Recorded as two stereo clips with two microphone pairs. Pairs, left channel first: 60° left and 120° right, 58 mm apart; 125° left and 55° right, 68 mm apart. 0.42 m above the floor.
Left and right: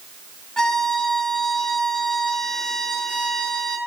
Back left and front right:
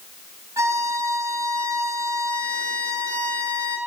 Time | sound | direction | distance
0.6 | a violin | 20° right | 1.9 m